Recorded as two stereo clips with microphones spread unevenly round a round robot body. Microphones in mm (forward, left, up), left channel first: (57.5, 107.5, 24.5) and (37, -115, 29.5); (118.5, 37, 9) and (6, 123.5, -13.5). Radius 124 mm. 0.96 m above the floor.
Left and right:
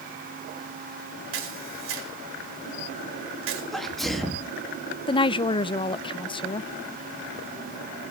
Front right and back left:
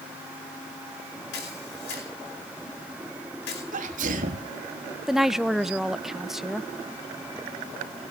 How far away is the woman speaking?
About 0.6 m.